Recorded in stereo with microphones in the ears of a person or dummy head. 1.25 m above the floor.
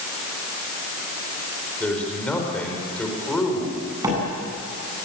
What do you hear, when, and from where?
1.8 s a man speaking: 5° left (ahead or behind), 5 m
4.0 s a door slam: 20° right (ahead or behind), 9.5 m